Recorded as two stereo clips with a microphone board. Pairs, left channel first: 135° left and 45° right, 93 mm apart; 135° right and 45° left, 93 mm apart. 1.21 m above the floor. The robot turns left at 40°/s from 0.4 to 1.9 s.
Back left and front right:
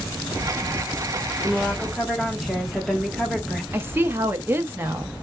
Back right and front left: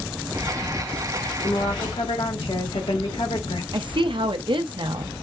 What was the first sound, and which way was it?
A woman speaking, 120° right.